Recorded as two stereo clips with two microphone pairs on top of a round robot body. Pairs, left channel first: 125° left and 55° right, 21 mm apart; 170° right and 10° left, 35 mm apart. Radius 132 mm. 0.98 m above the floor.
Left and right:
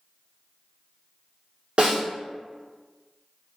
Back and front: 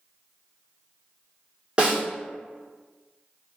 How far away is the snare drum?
About 1.6 m.